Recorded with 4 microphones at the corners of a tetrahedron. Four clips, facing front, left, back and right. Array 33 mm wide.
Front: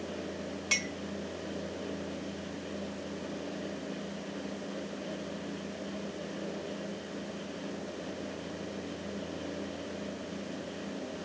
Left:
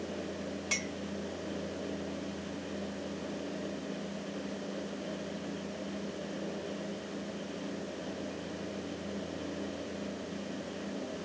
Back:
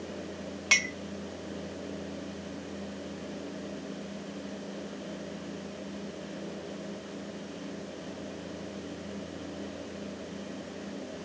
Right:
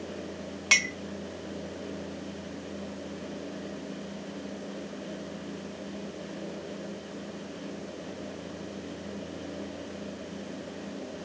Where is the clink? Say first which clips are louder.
Right 13 dB, back 6 dB; 120° right.